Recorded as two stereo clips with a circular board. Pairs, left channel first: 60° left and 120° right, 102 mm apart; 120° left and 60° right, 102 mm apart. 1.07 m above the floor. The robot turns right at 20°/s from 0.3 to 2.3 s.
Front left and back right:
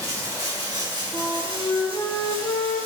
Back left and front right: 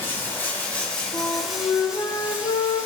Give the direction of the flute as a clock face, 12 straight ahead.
9 o'clock.